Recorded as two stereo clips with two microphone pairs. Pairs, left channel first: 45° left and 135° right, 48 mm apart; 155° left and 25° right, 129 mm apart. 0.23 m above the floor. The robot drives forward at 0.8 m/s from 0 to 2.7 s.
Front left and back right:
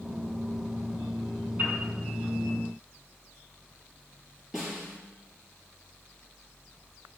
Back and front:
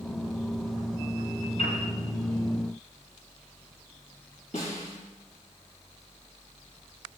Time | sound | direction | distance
1.6 | a piano | 175° left | 5 m
4.5 | a snare drum | 135° left | 5 m